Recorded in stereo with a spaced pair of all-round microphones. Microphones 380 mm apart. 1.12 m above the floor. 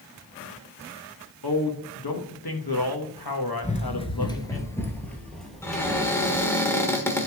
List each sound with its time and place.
1.4 s a man speaking: 70° left (ahead or behind), 1.5 m
3.6 s running footsteps: 20° left (ahead or behind), 1.1 m; by 6.5 s 5° right (ahead or behind), 2.5 m
5.6 s a cupboard door: 5° left (ahead or behind), 1.3 m